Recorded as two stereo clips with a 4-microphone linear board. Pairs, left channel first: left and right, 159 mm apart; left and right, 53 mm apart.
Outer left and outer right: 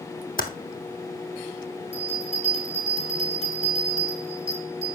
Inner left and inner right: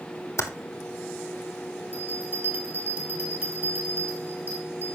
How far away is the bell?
About 6 m.